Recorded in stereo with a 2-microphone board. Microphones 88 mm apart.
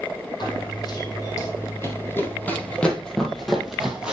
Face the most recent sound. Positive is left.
turn(degrees=-10)  # may be behind; listen again after turning